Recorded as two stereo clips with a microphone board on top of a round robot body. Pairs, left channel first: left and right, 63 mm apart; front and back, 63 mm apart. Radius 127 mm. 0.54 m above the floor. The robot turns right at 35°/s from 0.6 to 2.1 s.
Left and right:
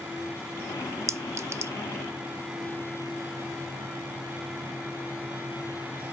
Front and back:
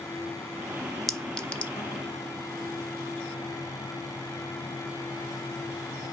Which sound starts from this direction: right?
A clink, at 1.1 s.